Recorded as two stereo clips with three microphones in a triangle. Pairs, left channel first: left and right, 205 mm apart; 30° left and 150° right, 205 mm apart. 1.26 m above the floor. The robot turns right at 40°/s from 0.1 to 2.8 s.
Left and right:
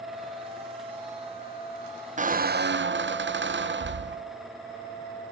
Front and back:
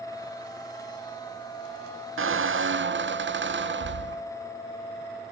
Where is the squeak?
145° right, 0.5 m; by 4.2 s 120° right, 0.5 m.